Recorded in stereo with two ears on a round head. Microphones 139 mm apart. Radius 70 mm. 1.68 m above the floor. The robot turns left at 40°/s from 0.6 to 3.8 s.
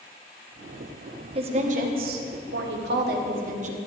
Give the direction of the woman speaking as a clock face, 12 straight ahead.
1 o'clock.